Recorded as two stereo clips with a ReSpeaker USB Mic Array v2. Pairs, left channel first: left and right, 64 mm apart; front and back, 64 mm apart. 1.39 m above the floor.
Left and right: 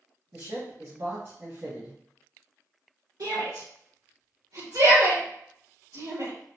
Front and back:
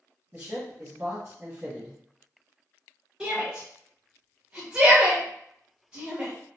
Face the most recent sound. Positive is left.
turn(degrees=-105)